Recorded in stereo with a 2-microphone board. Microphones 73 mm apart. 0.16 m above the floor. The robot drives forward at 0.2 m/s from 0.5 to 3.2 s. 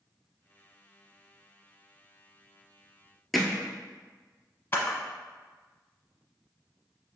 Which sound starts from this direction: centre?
Hammering, at 3.3 s.